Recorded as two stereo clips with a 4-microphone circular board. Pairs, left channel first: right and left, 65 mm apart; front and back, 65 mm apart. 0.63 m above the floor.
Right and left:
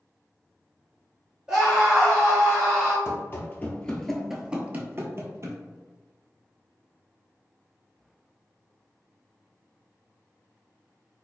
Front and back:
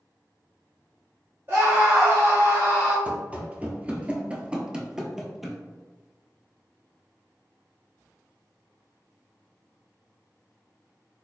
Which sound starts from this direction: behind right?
Running footsteps, at 3.0 s.